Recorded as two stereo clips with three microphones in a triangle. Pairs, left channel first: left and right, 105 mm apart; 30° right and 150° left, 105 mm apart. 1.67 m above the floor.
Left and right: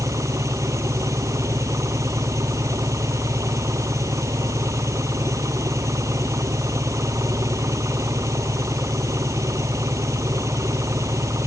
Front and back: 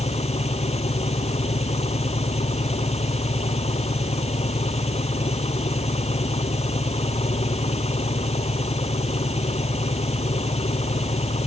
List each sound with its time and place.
0.0 s an engine running: 30° right